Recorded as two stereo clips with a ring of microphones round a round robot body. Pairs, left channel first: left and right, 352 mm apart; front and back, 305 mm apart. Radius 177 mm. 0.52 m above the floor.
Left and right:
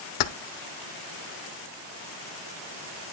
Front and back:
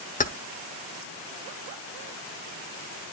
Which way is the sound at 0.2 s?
65° left.